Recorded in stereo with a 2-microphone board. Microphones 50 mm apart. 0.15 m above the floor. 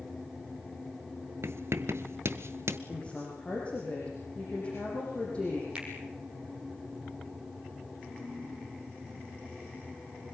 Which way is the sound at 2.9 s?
20° left (ahead or behind).